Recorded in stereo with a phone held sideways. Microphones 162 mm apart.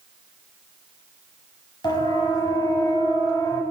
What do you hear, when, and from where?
1.8 s a siren: 25° left (ahead or behind), 9 m; by 3.6 s 20° left (ahead or behind), 8 m